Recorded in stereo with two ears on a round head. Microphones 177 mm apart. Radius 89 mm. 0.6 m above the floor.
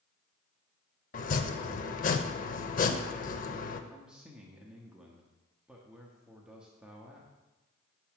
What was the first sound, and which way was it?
Chopping, 45° left (ahead or behind).